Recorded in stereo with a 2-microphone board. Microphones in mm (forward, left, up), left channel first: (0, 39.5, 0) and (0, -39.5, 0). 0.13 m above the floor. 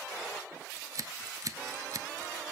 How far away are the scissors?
About 0.6 m.